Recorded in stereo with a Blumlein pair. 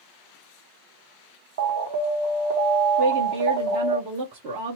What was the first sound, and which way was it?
An alarm, 55° right.